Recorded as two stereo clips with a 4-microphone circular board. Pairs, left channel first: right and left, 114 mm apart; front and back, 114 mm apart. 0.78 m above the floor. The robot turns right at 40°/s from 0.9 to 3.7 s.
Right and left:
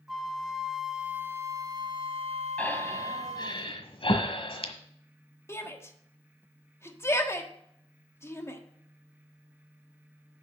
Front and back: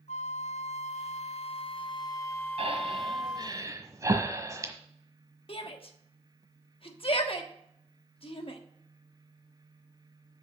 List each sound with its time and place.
0.1 s a flute: 5° left, 0.5 m; by 3.6 s 110° left, 0.5 m
2.6 s breathing: 170° right, 1.3 m; by 4.7 s 125° right, 1.3 m
5.5 s a shout: 25° right, 1.3 m